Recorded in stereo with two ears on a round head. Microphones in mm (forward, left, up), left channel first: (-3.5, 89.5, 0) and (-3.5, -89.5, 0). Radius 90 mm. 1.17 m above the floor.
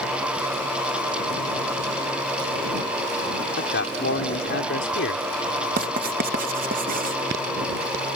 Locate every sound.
3.6 s a man speaking: 60° left (ahead or behind)
5.8 s writing: 45° right (ahead or behind)